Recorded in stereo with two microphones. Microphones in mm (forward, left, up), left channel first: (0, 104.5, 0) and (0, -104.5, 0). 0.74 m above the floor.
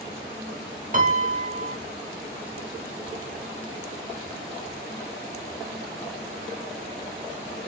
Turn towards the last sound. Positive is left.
turn(degrees=-40)  # may be behind; listen again after turning